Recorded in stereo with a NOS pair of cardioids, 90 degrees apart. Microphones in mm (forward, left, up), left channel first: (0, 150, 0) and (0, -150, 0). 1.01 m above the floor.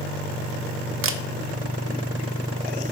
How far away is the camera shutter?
About 0.7 m.